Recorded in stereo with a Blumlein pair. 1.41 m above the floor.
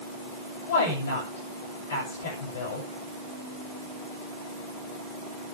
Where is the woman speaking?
60° left, 8.5 m.